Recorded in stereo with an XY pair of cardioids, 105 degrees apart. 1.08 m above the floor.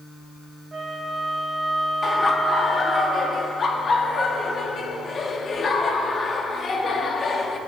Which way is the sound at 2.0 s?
40° left.